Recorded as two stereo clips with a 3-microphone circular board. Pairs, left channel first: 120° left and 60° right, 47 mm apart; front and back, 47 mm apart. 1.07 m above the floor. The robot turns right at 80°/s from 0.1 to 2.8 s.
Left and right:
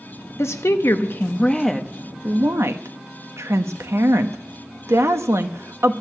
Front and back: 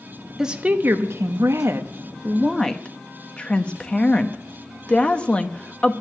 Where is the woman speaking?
105° left, 1.0 m; by 5.9 s 65° right, 1.0 m.